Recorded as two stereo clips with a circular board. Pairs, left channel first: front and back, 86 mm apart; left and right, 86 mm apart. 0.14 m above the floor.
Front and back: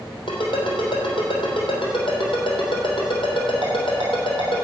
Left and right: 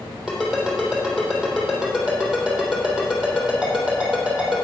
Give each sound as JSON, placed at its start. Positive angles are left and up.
{"t": 0.3, "sound": "a ringtone", "azimuth_deg": -5, "distance_m": 3.0}